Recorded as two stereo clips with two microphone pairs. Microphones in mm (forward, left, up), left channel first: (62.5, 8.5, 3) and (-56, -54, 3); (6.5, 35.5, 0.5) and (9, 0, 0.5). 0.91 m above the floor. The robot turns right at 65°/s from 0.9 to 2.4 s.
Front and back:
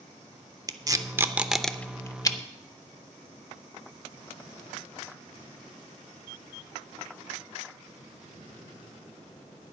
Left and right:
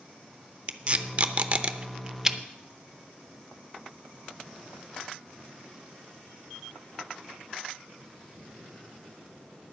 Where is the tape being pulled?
110° right, 0.6 m; by 2.4 s 15° right, 0.6 m.